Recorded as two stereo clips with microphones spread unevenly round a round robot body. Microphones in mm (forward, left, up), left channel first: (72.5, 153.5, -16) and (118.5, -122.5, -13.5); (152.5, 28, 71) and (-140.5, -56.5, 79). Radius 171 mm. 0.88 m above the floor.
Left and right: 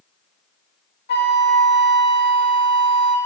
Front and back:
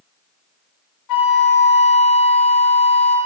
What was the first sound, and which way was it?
A flute, 45° left.